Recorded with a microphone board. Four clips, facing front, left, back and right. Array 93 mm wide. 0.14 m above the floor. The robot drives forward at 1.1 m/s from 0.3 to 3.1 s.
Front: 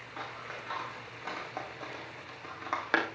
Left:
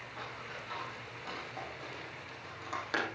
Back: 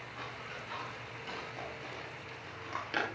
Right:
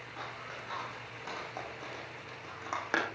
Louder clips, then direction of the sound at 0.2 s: Right 2 dB, front 4 dB; 15° right.